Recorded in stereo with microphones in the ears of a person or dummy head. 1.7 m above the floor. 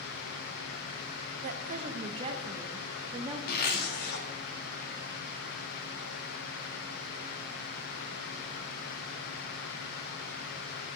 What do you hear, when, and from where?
1.4 s a woman speaking: 50° right (ahead or behind), 1.1 m; by 3.4 s 25° right (ahead or behind), 2.5 m
3.5 s a zipper: 55° left (ahead or behind), 2.5 m